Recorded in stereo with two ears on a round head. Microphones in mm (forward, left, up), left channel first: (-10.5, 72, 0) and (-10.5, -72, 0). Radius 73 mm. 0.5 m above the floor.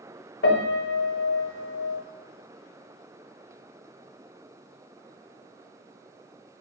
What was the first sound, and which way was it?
A piano, 75° left (ahead or behind).